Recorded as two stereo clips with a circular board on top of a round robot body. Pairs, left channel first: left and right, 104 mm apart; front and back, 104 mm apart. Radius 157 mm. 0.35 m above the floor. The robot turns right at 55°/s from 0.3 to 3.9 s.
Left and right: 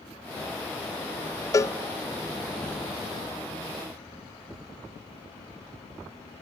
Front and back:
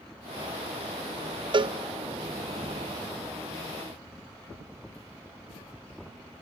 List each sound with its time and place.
1.5 s a cowbell: 145° left, 0.5 m; by 1.8 s 160° left, 0.5 m